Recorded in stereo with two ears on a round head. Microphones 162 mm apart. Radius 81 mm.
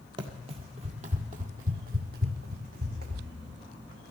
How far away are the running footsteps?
About 1.2 m.